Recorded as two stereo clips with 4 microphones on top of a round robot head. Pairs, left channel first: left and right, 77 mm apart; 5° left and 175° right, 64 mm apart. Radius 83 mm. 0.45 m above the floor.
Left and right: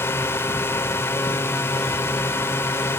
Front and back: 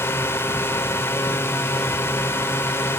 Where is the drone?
40° left.